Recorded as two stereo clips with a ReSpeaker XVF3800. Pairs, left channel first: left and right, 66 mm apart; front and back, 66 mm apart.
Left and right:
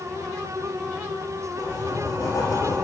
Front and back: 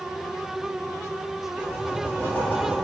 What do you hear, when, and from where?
1.6 s writing: 60° left, 3 m